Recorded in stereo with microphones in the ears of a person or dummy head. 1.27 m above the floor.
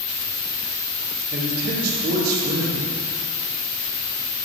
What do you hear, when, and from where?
0.0 s an insect: 50° left (ahead or behind), 3 m
1.3 s a man speaking: 50° right (ahead or behind), 2 m